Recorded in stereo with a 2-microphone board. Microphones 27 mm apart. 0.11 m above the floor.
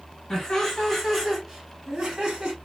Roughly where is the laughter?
Left.